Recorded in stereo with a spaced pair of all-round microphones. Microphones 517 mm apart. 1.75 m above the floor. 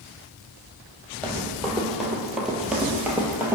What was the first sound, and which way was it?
Running footsteps, centre (ahead or behind).